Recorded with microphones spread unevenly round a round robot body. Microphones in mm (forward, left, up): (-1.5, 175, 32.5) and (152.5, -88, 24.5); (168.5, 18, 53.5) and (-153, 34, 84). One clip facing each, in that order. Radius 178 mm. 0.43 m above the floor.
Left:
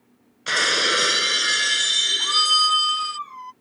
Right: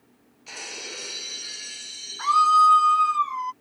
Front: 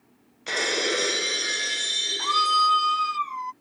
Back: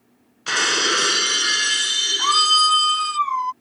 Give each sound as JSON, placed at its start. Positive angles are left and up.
{"t": 0.5, "sound": "breaking glass", "azimuth_deg": 115}
{"t": 2.2, "sound": "a scream", "azimuth_deg": -130}